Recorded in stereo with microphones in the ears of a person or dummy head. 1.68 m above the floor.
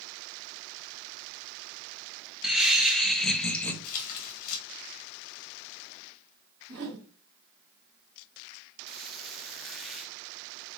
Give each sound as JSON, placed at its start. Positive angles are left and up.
{"t": 2.4, "sound": "laughter", "side_deg": -5, "distance_m": 2.5}
{"t": 3.8, "sound": "tearing paper", "side_deg": 45, "distance_m": 3.5}
{"t": 6.7, "sound": "a whoosh", "side_deg": -65, "distance_m": 3.0}
{"t": 8.9, "sound": "a squeak", "side_deg": 0, "distance_m": 1.2}